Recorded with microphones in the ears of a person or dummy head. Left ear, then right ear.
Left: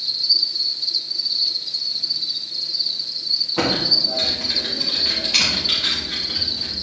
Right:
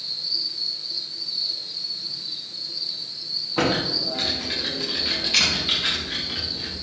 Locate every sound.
0.0 s an insect: 70° left (ahead or behind), 1.2 m
3.6 s typing on a keyboard: 5° left (ahead or behind), 2 m